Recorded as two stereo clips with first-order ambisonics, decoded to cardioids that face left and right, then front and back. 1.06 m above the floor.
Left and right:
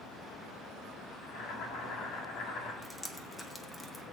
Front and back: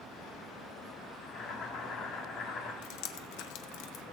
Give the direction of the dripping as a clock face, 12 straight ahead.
12 o'clock.